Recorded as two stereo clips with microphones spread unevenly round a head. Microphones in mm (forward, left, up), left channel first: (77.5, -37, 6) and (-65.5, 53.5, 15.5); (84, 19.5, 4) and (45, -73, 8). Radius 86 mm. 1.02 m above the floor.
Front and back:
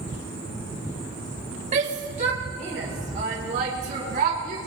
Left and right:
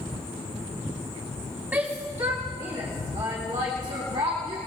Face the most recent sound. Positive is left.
turn(degrees=-165)